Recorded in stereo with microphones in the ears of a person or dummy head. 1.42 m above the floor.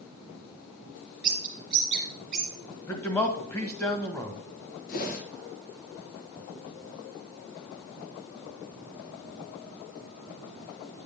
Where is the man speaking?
15° left (ahead or behind), 1.4 m.